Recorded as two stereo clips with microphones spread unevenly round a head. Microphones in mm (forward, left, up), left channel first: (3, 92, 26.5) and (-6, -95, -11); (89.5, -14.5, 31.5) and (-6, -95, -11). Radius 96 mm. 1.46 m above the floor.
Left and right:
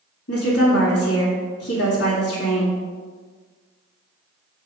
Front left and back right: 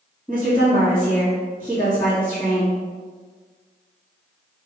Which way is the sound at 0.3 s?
115° left.